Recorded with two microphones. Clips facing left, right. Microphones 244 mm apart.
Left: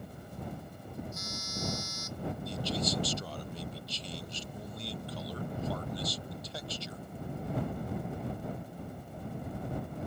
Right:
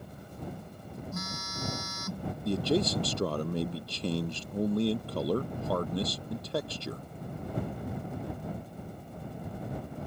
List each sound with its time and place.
1.1 s a phone buzzing: 85° right
2.5 s a man speaking: 75° right (ahead or behind)